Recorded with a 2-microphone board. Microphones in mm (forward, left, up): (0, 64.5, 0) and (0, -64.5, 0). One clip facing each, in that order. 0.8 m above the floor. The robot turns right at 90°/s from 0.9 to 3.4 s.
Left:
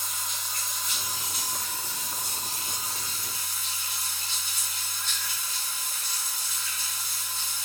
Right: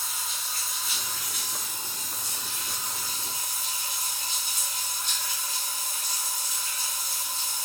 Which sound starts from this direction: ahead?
Running water, at 0.0 s.